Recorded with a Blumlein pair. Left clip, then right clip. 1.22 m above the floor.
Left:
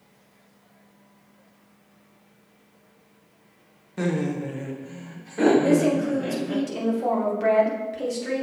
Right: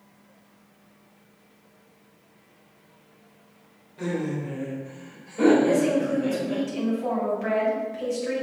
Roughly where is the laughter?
Ahead left.